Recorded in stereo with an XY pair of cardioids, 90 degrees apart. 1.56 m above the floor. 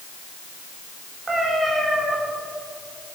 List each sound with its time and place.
1.3 s a cat meowing: 30° right, 2.5 m